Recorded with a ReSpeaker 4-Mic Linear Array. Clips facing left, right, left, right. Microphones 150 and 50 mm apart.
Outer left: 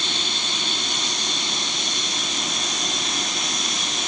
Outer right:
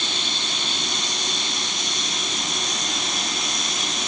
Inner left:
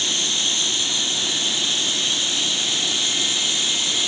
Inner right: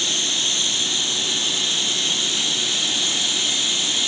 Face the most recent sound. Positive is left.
No sound to turn to.